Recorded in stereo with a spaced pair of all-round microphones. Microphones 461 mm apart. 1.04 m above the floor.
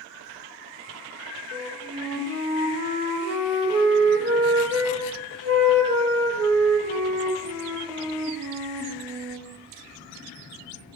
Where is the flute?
30° right (ahead or behind), 1.0 m.